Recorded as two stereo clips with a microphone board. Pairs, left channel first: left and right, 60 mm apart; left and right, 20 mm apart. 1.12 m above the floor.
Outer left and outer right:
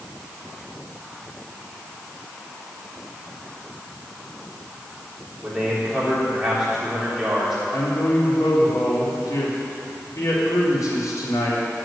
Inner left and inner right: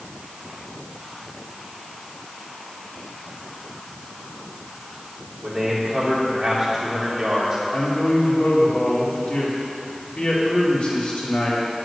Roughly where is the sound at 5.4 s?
Centre.